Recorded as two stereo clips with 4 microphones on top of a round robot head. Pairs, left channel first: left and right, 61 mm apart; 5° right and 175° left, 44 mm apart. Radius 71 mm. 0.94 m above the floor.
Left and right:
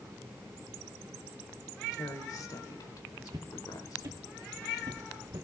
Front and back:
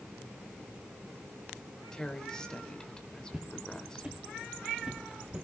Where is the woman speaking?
70° left, 3 m.